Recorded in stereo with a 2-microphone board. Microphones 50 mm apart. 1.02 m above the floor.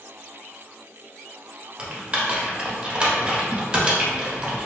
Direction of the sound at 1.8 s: 20° right (ahead or behind).